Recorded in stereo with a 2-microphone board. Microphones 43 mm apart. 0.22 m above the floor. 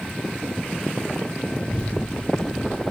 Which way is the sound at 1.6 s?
30° left (ahead or behind).